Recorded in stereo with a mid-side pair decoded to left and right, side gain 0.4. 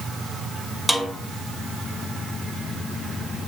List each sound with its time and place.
0.9 s a snare drum: 10° right, 2 m